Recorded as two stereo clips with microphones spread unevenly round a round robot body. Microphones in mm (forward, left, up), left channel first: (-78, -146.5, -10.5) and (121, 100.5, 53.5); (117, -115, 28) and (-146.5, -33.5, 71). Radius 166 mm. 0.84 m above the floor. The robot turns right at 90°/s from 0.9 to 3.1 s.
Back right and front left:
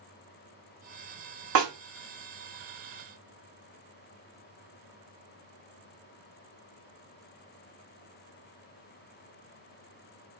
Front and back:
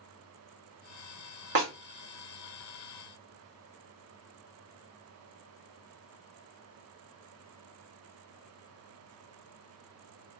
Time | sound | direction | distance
1.6 | a snare drum | 105° left | 1.3 m